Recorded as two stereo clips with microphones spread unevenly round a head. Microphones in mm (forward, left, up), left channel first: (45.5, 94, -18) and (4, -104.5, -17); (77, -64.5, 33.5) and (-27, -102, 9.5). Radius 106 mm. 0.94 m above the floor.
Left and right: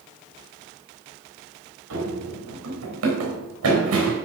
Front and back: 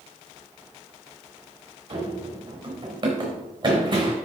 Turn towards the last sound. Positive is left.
turn(degrees=-115)